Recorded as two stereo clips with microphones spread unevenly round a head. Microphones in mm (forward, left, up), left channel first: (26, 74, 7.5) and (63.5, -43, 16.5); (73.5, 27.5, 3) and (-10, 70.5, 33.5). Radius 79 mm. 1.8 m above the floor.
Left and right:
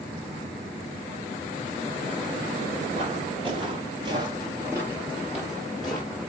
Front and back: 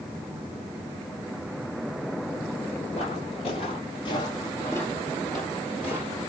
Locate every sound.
2.9 s footsteps: 60° right, 2.5 m; by 6.2 s 170° right, 2.5 m